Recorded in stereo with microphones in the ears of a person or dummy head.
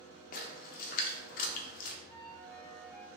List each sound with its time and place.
0.3 s a splash: 40° left (ahead or behind), 0.5 m
2.1 s a flute: 10° left (ahead or behind), 0.7 m